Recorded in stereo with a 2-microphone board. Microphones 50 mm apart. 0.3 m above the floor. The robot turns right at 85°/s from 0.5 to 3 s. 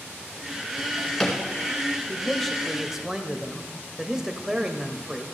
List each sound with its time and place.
0.8 s a drawer: 35° left (ahead or behind), 2 m; by 1.4 s 10° right (ahead or behind), 2 m
2.1 s a man speaking: 15° left (ahead or behind), 0.9 m; by 5.2 s 10° right (ahead or behind), 0.9 m